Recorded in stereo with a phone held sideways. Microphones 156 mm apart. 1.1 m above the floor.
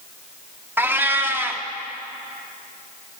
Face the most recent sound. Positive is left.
turn(degrees=-15)  # may be behind; listen again after turning